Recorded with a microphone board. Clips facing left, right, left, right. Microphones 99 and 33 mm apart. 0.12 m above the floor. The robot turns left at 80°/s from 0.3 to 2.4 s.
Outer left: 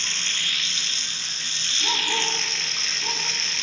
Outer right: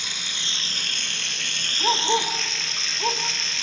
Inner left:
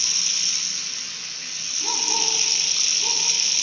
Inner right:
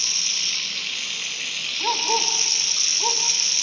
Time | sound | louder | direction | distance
0.0 | running water | outer left 1 dB, inner right 1 dB | 10° right | 1.5 m
1.8 | a dog barking | outer right 6 dB, inner right 4 dB | 65° right (ahead or behind) | 5.5 m